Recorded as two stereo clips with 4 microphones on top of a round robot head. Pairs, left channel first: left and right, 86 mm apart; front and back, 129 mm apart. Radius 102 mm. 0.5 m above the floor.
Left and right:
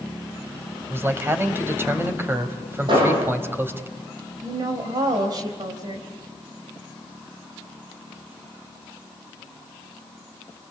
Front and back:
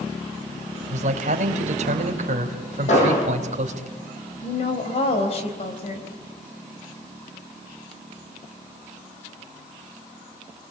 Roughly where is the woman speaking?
Ahead right.